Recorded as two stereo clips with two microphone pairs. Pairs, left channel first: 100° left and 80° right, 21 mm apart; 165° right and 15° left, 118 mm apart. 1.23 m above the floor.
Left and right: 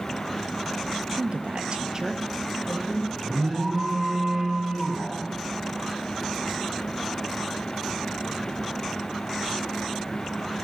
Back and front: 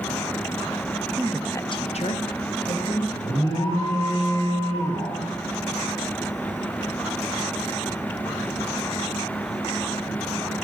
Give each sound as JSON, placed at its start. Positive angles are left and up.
{"t": 1.2, "sound": "a woman speaking", "azimuth_deg": -55, "distance_m": 0.6}
{"t": 3.2, "sound": "an alarm", "azimuth_deg": -130, "distance_m": 5.0}